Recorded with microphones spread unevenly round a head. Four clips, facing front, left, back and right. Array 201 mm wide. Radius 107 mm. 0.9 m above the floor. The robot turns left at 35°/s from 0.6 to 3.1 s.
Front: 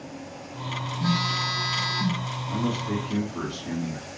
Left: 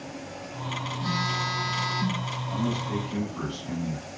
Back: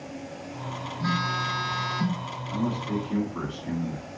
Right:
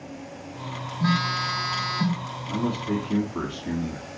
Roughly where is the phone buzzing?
Right.